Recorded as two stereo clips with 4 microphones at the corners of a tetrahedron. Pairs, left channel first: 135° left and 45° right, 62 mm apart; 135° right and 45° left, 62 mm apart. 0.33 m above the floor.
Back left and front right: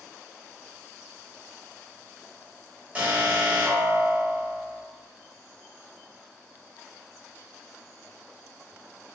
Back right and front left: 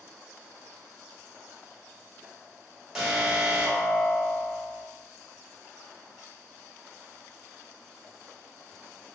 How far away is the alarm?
About 0.8 m.